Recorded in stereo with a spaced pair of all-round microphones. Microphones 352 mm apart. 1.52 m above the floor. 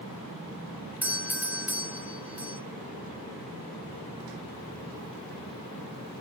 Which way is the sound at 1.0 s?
5° right (ahead or behind).